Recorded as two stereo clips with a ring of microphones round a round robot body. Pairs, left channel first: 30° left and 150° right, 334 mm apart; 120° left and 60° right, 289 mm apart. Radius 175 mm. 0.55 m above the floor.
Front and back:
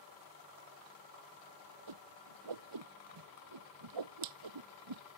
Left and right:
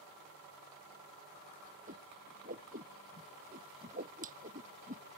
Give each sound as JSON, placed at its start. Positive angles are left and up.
{"t": 1.9, "sound": "a whoosh", "azimuth_deg": -125}